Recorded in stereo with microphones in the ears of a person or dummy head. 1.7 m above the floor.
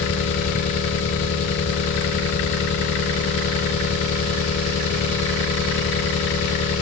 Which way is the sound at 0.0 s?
35° left (ahead or behind).